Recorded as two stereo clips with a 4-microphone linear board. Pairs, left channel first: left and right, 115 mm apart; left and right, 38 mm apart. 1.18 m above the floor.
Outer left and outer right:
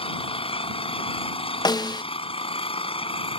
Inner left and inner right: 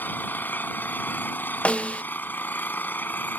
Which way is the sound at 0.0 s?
55° left (ahead or behind).